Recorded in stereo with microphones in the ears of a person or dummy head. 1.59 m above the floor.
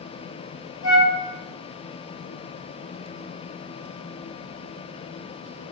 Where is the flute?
85° left, 0.9 m.